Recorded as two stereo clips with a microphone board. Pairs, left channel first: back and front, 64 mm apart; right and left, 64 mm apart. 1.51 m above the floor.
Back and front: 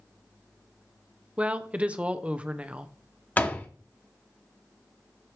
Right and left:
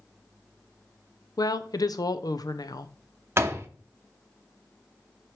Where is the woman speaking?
70° right, 0.7 m.